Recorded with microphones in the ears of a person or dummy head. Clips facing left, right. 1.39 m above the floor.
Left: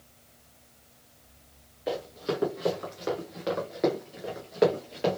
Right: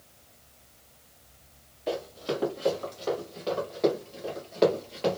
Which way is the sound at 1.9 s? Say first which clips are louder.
Even; 10° left (ahead or behind).